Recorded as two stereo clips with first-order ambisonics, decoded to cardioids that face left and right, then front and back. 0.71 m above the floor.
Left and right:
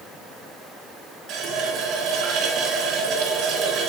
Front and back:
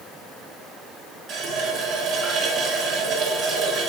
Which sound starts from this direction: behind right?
A running tap, at 1.3 s.